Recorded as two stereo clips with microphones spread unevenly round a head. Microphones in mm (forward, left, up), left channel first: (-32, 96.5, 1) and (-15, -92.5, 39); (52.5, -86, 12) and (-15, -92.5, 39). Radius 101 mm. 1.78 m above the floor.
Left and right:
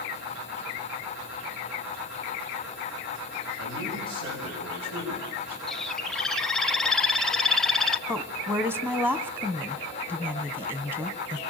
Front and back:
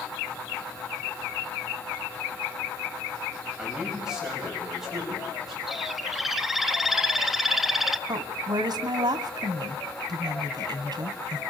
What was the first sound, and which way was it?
A man speaking, 100° right.